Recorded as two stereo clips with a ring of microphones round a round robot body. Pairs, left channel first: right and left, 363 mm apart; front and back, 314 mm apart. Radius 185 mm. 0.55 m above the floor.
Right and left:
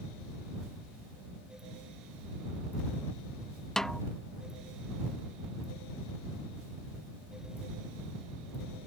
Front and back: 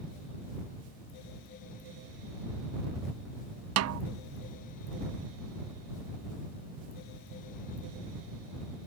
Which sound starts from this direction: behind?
A snare drum, at 3.8 s.